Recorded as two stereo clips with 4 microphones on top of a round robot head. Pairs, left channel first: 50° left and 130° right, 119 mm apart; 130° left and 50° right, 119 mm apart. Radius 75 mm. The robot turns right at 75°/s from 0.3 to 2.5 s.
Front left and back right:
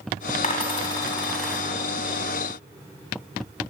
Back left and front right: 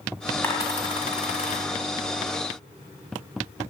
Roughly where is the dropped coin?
Ahead left.